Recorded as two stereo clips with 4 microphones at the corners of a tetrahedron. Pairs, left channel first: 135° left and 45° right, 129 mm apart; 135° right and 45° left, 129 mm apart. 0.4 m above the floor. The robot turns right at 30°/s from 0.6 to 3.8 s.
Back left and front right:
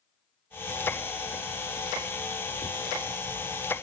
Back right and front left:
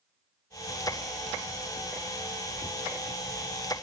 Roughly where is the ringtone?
No ringtone in this recording.